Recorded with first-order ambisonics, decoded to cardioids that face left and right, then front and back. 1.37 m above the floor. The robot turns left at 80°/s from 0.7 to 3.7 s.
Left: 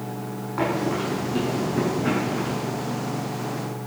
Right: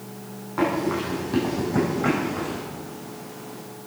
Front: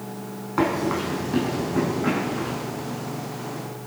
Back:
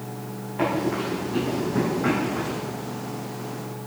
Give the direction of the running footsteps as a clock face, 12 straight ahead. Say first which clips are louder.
Right 1 dB, front 2 dB; 12 o'clock.